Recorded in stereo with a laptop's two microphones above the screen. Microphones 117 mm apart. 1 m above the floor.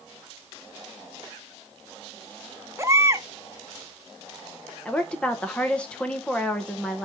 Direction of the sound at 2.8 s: 25° right (ahead or behind).